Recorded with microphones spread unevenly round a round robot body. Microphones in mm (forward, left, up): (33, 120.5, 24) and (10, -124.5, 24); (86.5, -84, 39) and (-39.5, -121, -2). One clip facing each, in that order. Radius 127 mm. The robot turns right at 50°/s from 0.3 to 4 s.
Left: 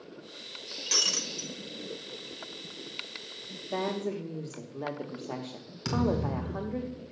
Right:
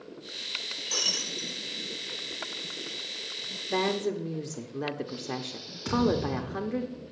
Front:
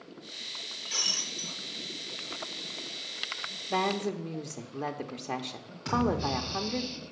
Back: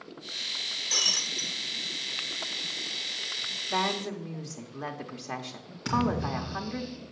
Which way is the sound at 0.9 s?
145° left.